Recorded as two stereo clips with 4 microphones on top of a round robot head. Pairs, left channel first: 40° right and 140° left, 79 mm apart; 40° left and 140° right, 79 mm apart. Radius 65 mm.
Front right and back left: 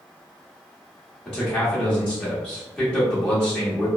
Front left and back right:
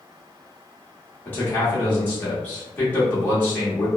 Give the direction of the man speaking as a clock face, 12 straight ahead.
11 o'clock.